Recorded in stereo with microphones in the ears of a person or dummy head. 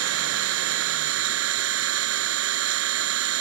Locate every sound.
0.0 s an engine running: 80° right